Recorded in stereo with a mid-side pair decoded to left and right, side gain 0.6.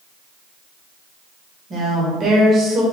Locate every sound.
1.7 s a woman speaking: 35° right, 1.6 m